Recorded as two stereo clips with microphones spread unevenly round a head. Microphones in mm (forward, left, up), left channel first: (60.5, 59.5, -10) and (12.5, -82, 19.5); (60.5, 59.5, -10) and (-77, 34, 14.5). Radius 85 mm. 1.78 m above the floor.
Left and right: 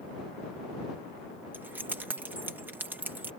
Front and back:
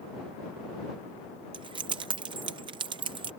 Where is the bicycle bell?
No bicycle bell in this recording.